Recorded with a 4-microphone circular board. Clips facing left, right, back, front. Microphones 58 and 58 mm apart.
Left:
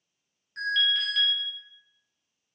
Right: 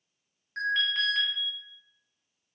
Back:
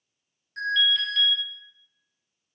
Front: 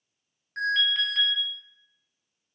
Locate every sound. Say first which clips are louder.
0.6 s an alarm: left 1 dB, back 1 dB; 45° right, 1.2 m